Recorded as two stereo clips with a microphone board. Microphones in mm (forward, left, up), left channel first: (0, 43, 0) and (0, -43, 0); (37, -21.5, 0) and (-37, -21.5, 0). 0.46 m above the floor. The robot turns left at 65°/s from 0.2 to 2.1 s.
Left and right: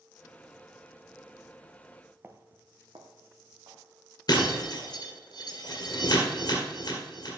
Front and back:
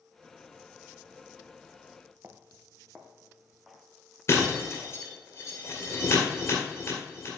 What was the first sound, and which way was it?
Footsteps, 135° right.